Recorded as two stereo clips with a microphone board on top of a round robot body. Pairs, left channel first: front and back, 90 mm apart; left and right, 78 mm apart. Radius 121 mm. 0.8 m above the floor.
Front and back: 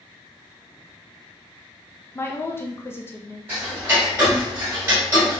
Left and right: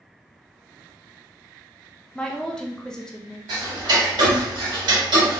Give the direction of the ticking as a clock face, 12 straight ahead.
4 o'clock.